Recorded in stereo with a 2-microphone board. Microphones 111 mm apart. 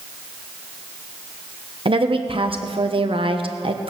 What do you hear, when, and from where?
1.9 s a woman speaking: 55° right (ahead or behind), 1.1 m